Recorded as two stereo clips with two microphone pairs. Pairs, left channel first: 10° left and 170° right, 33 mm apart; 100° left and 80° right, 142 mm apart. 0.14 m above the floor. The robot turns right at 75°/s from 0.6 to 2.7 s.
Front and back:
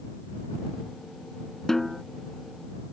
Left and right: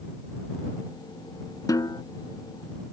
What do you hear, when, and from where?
1.7 s a snare drum: 65° left; by 2.0 s 90° left